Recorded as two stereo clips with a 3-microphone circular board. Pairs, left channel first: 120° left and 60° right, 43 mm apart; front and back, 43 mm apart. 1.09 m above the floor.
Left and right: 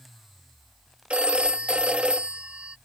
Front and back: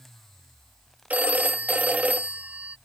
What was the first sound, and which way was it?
A phone ringing, 125° right.